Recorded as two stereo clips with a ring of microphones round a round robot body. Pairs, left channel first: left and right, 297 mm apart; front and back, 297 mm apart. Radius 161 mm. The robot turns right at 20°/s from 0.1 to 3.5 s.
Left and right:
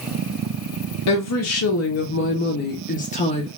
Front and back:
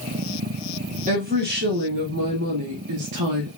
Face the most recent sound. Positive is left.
turn(degrees=165)